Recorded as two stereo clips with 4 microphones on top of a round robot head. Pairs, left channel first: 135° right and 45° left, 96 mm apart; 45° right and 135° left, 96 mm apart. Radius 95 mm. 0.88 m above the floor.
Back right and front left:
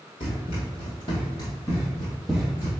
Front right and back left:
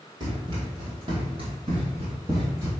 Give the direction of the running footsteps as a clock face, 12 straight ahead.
6 o'clock.